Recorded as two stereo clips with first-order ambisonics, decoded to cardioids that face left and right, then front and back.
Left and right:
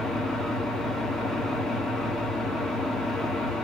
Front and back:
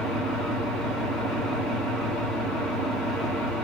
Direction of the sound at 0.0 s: 160° left.